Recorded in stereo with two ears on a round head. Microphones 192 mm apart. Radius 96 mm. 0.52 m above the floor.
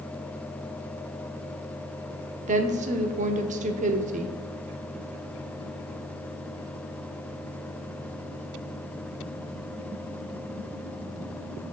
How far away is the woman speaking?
About 0.8 m.